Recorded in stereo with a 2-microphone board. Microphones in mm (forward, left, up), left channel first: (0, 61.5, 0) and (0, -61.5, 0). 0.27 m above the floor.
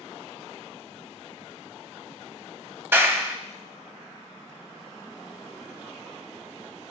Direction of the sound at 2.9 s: 20° right (ahead or behind).